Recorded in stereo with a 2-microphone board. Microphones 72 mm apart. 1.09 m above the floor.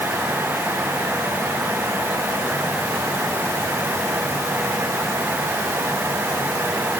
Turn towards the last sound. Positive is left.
No sound to turn to.